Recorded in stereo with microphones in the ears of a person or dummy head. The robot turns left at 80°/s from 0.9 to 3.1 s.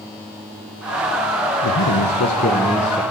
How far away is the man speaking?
About 1.4 m.